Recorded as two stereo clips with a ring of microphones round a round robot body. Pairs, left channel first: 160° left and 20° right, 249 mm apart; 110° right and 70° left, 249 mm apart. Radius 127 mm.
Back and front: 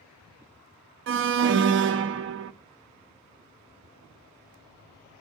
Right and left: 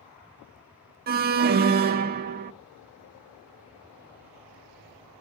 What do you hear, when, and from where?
1.1 s an alarm: 15° left, 0.5 m